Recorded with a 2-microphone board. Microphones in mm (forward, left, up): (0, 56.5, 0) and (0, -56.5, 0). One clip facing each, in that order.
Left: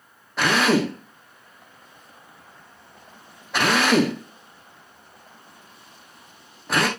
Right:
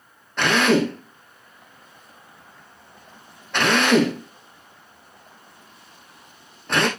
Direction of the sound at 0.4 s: 5° left (ahead or behind).